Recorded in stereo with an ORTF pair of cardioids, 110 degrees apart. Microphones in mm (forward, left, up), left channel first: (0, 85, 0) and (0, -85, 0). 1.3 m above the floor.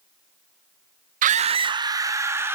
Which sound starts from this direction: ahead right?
A scream, at 1.2 s.